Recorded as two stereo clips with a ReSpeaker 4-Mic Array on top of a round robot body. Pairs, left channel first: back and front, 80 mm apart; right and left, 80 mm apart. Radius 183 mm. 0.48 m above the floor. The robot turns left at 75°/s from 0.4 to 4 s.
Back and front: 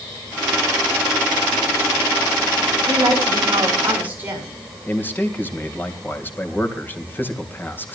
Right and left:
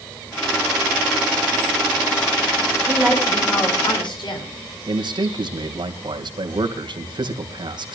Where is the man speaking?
115° left, 3 m.